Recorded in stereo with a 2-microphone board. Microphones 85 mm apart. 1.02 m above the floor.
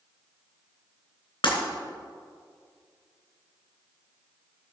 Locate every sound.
1.4 s breaking glass: 75° left (ahead or behind), 3 m